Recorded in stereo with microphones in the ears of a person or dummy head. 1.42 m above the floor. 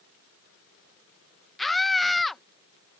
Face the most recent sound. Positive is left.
turn(degrees=5)  # may be behind; listen again after turning